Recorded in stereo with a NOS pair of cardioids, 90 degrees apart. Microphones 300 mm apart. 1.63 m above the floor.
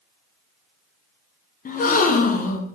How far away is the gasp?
About 0.7 m.